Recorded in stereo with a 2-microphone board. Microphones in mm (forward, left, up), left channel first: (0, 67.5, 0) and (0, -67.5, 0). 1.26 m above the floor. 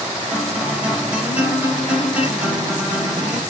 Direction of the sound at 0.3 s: 10° right (ahead or behind).